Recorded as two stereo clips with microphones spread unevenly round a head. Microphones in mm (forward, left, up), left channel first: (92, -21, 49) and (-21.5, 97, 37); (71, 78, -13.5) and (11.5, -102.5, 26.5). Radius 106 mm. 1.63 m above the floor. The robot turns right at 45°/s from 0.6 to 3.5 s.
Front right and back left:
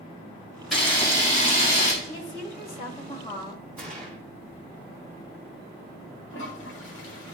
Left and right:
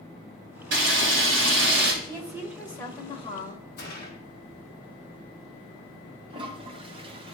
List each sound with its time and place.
0.7 s a camera shutter: 135° right, 2.5 m; by 1.9 s 80° right, 2.5 m
2.0 s a woman speaking: 45° right, 1.9 m; by 3.6 s 20° left, 1.9 m
3.8 s a gunshot: 40° left, 2.0 m
6.3 s a toilet flushing: 45° right, 1.5 m